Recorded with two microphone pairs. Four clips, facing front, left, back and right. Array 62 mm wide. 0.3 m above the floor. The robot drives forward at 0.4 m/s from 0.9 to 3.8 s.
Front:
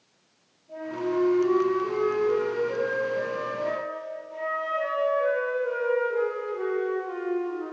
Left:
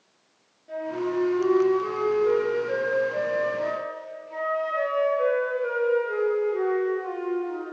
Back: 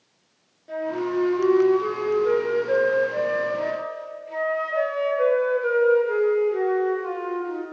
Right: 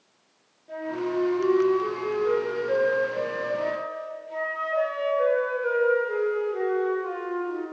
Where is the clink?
I don't hear a clink.